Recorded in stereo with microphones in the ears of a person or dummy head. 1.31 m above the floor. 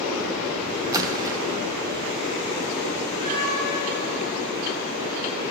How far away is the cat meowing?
About 3.5 m.